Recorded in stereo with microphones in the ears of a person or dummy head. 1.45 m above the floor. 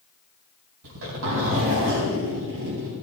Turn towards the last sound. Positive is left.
turn(degrees=-75)  # may be behind; listen again after turning